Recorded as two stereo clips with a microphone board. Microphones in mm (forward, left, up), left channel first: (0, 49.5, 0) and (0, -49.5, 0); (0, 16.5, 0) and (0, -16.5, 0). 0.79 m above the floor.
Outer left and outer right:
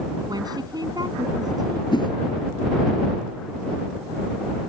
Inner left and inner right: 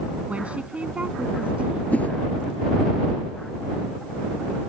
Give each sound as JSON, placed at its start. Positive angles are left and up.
{"t": 0.3, "sound": "a woman speaking", "side_deg": -40}
{"t": 1.9, "sound": "a whoosh", "side_deg": 50}